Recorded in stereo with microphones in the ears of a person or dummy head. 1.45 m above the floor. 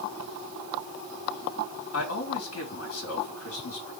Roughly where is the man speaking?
Left.